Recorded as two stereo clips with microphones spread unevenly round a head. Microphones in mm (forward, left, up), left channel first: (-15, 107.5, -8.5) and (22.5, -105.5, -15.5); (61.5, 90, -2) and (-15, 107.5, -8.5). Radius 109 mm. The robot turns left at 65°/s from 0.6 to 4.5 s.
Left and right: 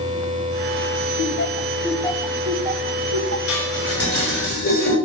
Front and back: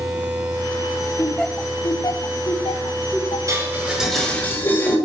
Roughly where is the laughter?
Left.